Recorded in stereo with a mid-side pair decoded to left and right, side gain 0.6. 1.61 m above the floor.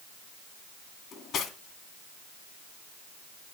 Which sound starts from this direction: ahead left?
Cutlery clinking, at 1.1 s.